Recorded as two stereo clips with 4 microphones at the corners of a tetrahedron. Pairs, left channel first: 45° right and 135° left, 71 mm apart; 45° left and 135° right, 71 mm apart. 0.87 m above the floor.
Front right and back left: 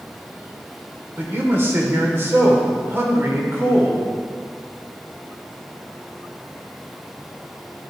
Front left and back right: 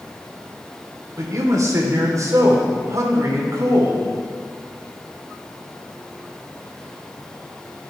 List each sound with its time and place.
1.2 s a man speaking: 175° right, 2.5 m